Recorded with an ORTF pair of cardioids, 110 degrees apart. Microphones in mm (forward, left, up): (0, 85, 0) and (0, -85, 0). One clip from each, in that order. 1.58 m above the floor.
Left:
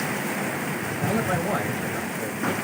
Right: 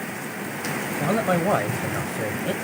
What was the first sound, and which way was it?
A man speaking, 55° right.